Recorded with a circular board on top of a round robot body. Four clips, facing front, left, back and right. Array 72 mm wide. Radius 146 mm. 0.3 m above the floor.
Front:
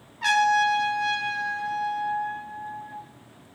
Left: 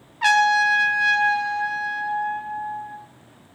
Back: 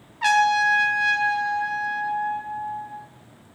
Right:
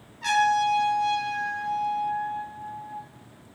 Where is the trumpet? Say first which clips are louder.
Left 4 dB, back 2 dB; 115° left, 2.5 m.